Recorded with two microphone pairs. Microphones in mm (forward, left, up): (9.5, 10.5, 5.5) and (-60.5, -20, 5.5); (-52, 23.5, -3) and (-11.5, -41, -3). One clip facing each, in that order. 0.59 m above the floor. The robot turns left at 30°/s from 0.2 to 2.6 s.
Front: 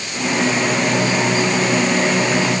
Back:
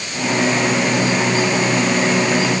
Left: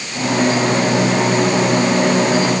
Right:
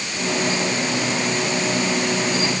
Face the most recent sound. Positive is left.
No sound to turn to.